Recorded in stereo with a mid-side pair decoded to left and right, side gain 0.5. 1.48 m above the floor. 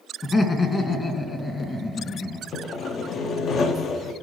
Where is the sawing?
55° left, 0.6 m.